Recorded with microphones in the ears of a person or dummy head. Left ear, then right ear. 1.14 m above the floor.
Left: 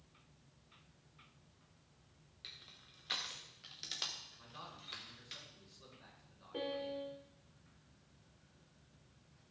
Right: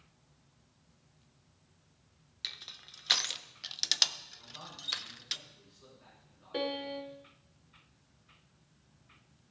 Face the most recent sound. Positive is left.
turn(degrees=-50)  # may be behind; listen again after turning